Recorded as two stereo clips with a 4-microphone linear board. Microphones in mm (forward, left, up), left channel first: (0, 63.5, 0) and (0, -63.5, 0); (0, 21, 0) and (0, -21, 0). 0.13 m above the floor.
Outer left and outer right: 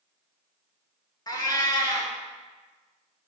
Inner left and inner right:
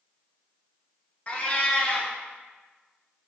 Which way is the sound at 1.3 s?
30° left (ahead or behind).